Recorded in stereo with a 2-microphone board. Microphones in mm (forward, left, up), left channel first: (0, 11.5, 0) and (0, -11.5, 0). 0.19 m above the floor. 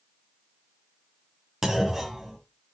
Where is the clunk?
20° right (ahead or behind), 1.5 m.